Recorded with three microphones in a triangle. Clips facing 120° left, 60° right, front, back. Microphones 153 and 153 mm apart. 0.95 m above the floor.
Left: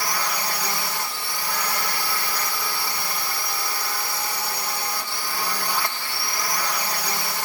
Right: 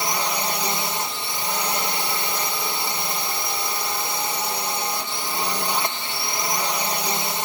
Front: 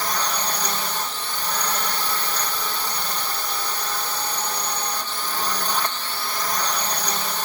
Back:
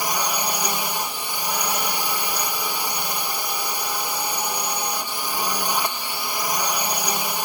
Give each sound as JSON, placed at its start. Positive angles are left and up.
{"t": 0.0, "sound": "a drone", "azimuth_deg": -110}